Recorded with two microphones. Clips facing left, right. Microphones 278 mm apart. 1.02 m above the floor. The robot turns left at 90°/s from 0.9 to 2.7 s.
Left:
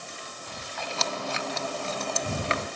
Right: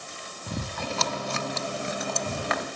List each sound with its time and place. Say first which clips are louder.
0.5 s chewing: right 7 dB; 55° right (ahead or behind); by 2.7 s 40° left (ahead or behind)